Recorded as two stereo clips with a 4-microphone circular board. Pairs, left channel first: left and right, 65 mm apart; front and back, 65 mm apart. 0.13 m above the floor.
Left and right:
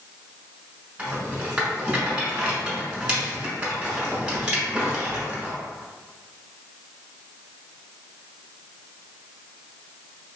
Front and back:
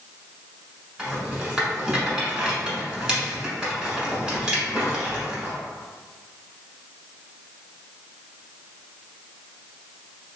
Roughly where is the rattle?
Behind right.